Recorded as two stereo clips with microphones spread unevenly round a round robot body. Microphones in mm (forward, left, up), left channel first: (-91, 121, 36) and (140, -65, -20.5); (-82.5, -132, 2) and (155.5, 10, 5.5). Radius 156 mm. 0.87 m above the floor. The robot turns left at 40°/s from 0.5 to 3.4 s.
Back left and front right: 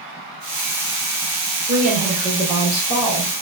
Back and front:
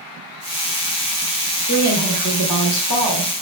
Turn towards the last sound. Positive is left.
turn(degrees=-160)